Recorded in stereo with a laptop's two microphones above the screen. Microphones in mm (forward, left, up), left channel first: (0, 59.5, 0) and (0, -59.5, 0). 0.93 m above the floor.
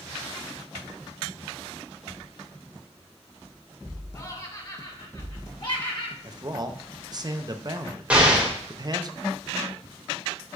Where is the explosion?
10° right (ahead or behind), 1.6 m.